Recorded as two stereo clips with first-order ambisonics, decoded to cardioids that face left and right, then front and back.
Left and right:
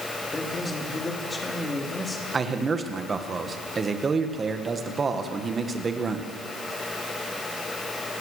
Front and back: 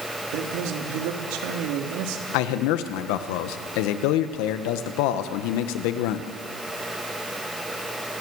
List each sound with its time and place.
0.3 s a man speaking: 165° left, 3.5 m
2.3 s a man speaking: 15° right, 1.8 m